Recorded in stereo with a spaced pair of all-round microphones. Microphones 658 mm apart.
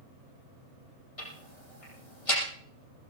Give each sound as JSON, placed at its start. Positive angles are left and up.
{"t": 1.2, "sound": "ticking", "side_deg": 55, "distance_m": 6.5}